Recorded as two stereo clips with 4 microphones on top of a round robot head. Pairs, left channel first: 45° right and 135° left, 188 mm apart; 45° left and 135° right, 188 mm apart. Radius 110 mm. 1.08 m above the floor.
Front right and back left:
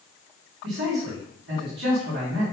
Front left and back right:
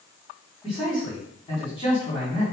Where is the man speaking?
110° left, 3 m.